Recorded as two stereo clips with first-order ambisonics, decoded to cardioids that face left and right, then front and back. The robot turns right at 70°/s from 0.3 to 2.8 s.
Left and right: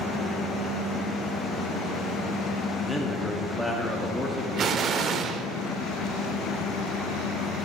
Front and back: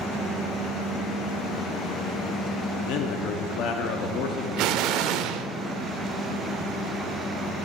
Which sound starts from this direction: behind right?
An explosion, at 4.6 s.